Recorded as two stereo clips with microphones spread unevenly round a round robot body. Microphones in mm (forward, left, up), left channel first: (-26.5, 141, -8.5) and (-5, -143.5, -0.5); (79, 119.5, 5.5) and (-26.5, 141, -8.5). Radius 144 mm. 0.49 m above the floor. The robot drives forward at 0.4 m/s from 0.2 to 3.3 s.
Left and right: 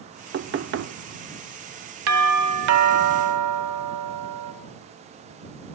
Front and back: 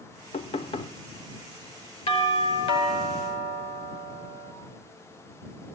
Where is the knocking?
35° right, 0.7 m; by 0.9 s 55° right, 0.6 m.